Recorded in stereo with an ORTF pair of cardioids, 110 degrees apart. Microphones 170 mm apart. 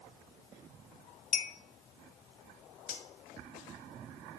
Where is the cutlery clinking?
60° left, 1.4 m.